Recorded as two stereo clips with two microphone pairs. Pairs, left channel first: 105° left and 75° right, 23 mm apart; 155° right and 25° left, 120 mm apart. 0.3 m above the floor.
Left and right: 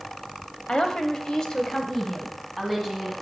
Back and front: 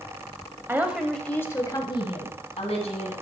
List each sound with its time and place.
0.7 s a woman speaking: 90° left, 1.2 m; by 3.1 s 170° right, 2.5 m